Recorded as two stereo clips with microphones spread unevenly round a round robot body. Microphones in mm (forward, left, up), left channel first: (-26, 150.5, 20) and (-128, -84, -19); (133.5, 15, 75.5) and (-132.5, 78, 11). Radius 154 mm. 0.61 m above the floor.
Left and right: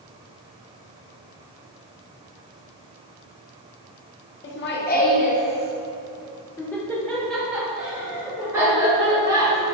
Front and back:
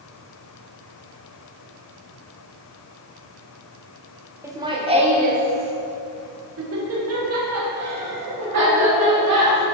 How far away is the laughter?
About 1.5 m.